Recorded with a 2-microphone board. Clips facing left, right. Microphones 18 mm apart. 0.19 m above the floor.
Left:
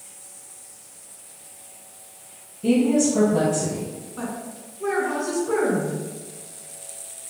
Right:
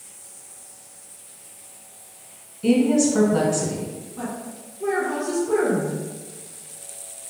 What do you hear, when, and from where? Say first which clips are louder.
2.6 s a woman speaking: right 1 dB; 35° right (ahead or behind), 1.1 m
4.2 s a woman speaking: even; 30° left (ahead or behind), 1.3 m